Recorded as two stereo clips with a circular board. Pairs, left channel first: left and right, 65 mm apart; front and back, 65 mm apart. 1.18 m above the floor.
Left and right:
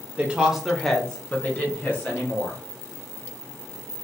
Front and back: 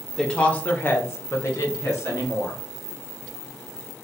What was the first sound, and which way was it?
A woman speaking, 70° right.